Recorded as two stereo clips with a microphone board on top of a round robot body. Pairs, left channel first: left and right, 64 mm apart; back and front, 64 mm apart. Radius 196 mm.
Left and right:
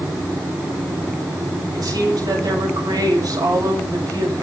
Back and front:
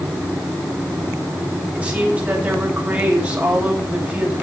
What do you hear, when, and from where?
1.7 s a woman speaking: 70° right, 8.5 m